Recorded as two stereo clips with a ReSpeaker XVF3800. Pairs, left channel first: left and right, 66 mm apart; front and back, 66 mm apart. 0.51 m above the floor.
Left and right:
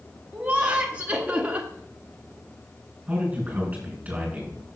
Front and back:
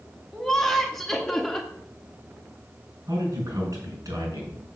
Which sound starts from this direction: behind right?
A man speaking, at 3.1 s.